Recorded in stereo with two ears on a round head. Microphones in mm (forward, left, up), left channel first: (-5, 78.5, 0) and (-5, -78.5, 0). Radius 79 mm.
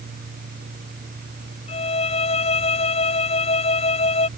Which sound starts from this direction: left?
A violin, at 1.7 s.